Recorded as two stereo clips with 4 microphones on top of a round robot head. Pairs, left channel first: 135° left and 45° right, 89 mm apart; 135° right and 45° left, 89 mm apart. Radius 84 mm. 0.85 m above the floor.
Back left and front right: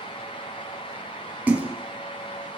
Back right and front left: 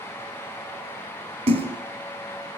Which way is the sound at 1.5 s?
30° left.